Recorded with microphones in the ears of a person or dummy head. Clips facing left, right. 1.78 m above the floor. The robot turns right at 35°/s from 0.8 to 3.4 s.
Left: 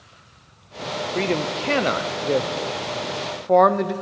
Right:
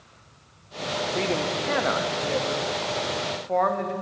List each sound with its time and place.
1.1 s a man speaking: 20° left (ahead or behind), 0.7 m; by 3.9 s 65° left (ahead or behind), 0.7 m